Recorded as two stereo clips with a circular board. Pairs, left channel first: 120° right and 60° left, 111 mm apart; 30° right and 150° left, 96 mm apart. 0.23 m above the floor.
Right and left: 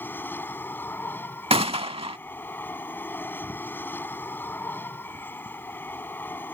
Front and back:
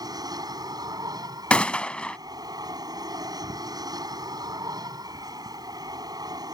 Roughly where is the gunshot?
Ahead left.